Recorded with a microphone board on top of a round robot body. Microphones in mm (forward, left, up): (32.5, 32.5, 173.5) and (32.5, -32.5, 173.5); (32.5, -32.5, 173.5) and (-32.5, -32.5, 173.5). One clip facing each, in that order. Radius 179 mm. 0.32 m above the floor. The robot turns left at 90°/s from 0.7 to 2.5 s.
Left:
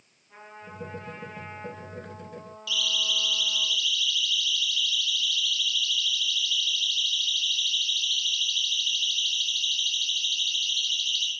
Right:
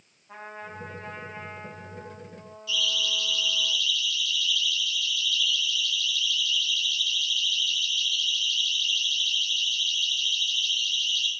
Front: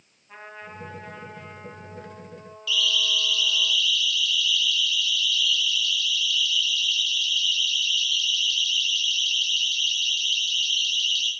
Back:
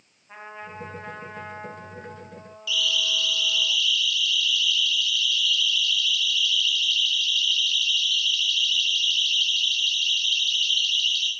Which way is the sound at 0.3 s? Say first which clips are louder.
Right 5 dB, back 2 dB; 105° right.